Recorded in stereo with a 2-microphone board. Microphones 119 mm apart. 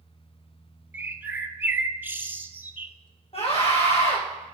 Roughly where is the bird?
Centre.